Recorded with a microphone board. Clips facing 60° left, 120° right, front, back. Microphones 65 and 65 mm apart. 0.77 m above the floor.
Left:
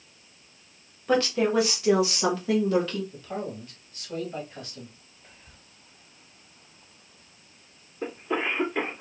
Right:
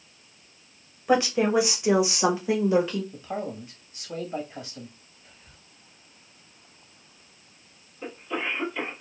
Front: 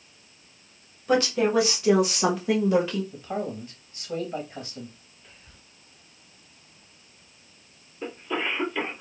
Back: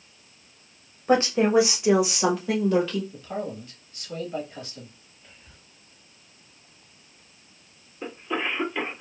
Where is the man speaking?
50° right, 1.3 m.